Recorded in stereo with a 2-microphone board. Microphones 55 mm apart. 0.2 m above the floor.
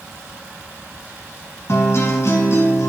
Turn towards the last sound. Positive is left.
turn(degrees=55)  # may be behind; listen again after turning